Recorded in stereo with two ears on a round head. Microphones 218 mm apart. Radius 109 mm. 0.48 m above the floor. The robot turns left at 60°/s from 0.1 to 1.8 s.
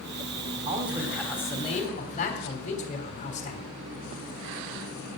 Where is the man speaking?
145° right, 3 m; by 3.7 s 145° left, 3 m.